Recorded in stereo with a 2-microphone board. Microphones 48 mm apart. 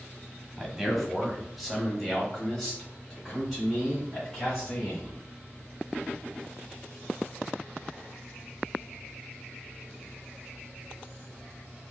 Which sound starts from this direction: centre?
A man speaking, at 0.6 s.